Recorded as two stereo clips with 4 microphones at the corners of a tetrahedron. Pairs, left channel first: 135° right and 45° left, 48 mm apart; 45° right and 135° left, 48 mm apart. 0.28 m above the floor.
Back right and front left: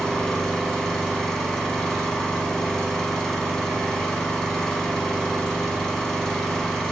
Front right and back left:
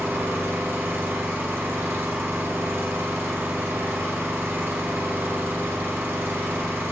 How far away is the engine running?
About 0.7 m.